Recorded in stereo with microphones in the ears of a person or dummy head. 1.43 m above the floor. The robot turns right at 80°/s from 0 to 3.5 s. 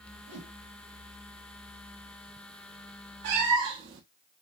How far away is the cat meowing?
About 0.9 m.